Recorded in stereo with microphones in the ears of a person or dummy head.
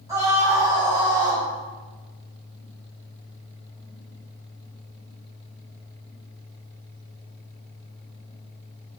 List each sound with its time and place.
0.1 s a scream: 15° right (ahead or behind), 7.5 m; by 1.4 s 25° right (ahead or behind), 9.5 m